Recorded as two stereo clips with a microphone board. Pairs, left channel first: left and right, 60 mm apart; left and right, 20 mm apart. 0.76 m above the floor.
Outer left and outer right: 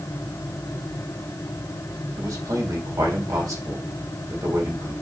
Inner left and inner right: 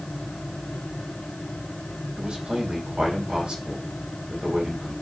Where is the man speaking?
70° right (ahead or behind), 3 m.